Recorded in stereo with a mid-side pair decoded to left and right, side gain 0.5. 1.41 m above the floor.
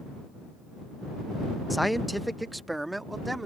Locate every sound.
1.7 s a man speaking: 5° left; by 3.5 s 15° right